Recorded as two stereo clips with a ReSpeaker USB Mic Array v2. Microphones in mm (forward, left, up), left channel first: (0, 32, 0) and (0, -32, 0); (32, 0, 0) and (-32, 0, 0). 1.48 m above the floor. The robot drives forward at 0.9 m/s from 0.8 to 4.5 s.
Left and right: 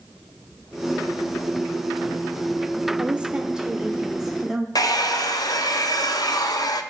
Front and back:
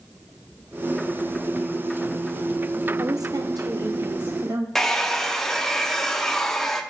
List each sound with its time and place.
3.0 s a woman speaking: 160° right, 0.6 m; by 4.7 s 175° right, 2.0 m
4.8 s a hair dryer: 85° left, 0.6 m